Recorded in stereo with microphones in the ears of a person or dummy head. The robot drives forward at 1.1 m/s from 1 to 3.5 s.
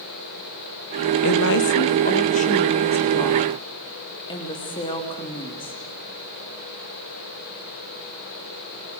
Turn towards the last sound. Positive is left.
turn(degrees=20)  # may be behind; listen again after turning